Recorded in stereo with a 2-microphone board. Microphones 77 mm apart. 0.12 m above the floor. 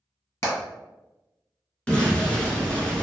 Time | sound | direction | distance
0.4 | hammering | 35° left (ahead or behind) | 1.5 m
1.9 | an explosion | 15° left (ahead or behind) | 1.0 m